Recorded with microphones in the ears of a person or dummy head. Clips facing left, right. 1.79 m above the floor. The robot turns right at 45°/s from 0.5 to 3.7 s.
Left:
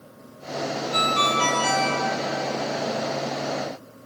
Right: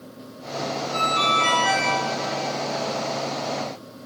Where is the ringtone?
50° left, 2 m; by 1.9 s 95° left, 2 m.